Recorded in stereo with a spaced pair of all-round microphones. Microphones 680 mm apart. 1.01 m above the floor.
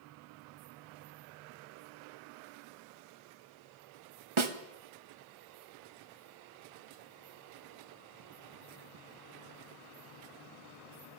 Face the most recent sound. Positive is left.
turn(degrees=-45)  # may be behind; listen again after turning